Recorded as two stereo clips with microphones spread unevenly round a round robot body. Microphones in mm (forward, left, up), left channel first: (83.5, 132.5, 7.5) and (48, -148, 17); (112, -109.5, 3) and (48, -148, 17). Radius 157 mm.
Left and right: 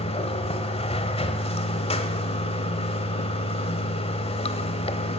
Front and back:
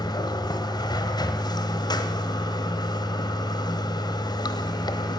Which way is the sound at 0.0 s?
15° left.